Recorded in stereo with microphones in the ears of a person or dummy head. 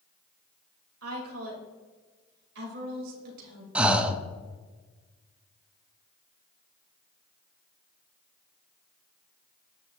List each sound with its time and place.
1.0 s a woman speaking: 85° right, 2.5 m; by 3.6 s 55° right (ahead or behind), 2.5 m
3.8 s breathing: 10° right (ahead or behind), 0.5 m